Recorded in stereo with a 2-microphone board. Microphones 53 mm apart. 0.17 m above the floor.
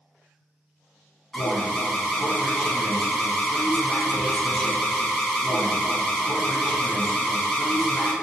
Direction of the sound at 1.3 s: 10° left (ahead or behind).